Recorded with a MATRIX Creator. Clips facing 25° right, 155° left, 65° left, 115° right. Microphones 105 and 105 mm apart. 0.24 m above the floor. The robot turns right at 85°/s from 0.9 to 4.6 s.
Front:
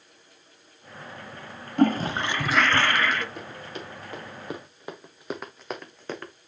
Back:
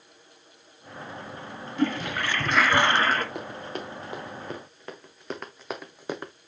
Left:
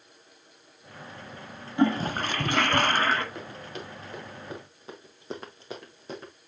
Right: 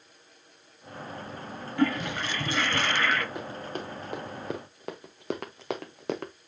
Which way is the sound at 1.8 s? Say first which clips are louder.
Front 5 dB, left 3 dB; straight ahead.